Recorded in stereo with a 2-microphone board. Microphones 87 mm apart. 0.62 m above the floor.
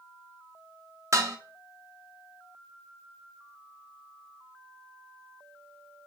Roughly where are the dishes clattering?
Right.